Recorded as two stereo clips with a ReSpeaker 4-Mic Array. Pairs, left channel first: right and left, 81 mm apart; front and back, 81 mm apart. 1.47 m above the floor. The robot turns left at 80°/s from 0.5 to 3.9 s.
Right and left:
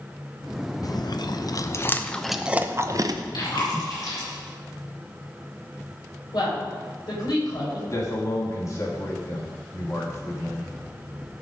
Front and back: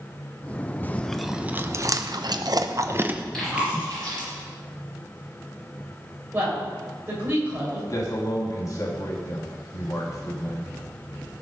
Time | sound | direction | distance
0.8 | chewing | 60° right | 0.8 m
3.3 | chewing | 85° right | 6 m
6.3 | a woman speaking | 115° right | 6.5 m
7.9 | a man speaking | 45° right | 3.5 m